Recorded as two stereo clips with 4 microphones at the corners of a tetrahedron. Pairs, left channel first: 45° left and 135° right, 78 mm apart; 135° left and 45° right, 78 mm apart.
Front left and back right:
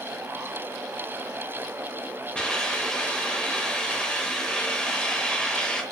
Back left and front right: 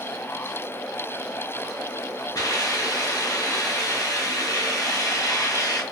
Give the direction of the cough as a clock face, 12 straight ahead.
No cough in this recording.